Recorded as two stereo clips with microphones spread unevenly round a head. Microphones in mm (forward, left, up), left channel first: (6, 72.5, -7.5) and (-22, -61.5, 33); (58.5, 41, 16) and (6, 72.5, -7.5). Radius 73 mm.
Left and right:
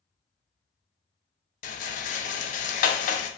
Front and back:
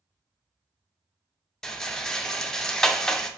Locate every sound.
1.6 s a rattle: 55° left, 0.5 m